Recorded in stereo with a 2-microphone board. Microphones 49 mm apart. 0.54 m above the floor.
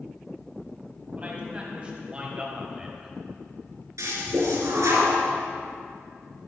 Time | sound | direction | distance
1.2 | a man speaking | 30° right (ahead or behind) | 3.5 m
4.0 | a toilet flushing | 80° right | 3 m